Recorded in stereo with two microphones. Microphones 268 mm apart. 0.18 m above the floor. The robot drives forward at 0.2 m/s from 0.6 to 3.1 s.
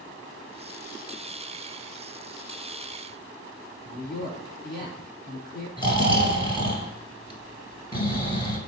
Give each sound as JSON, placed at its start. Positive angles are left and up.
{"t": 3.8, "sound": "a man speaking", "side_deg": 15, "distance_m": 1.4}
{"t": 5.8, "sound": "snoring", "side_deg": 20, "distance_m": 1.1}